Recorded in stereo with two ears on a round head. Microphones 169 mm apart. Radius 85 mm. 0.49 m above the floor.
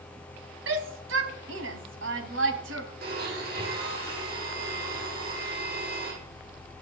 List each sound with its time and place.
0.7 s a shout: 75° right (ahead or behind), 3 m
3.0 s a blender: 55° right (ahead or behind), 9 m